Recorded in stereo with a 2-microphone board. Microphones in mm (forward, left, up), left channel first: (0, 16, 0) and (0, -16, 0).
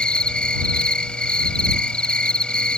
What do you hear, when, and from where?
0.0 s an insect: 30° left (ahead or behind)